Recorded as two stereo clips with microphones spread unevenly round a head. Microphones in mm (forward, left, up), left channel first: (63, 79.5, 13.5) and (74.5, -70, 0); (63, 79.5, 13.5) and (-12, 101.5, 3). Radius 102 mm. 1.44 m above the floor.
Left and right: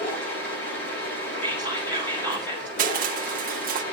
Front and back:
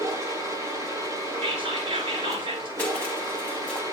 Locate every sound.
0.0 s a machine running: 115° left, 8 m
1.4 s whispering: 175° left, 4 m
2.8 s crushing: 85° right, 0.9 m